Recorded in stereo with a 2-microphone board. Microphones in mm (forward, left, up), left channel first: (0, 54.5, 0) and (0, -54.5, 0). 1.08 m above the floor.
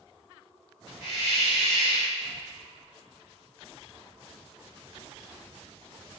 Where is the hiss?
80° left, 1.8 m.